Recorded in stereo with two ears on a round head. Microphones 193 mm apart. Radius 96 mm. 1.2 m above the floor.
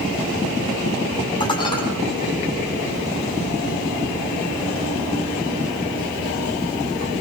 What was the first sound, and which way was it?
Dishes clattering, 20° left (ahead or behind).